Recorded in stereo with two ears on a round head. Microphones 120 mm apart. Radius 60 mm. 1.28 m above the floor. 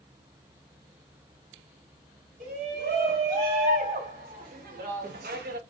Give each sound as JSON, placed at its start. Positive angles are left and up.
{"t": 2.4, "sound": "a shout", "side_deg": -60, "distance_m": 3.5}